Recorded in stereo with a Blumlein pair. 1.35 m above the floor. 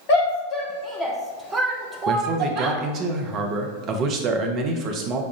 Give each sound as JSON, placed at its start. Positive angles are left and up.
{"t": 0.1, "sound": "a shout", "azimuth_deg": 40, "distance_m": 0.9}
{"t": 2.1, "sound": "a man speaking", "azimuth_deg": -35, "distance_m": 0.8}